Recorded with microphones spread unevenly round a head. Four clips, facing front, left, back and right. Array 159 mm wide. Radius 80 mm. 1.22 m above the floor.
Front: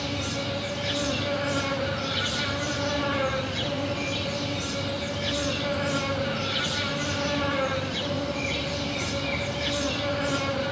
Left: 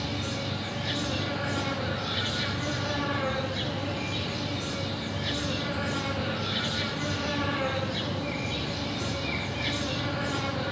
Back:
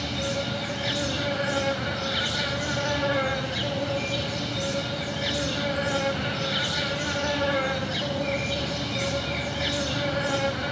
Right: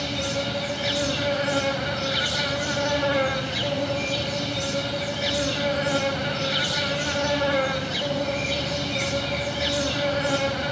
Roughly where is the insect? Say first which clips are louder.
Right 5 dB, back 1 dB; right.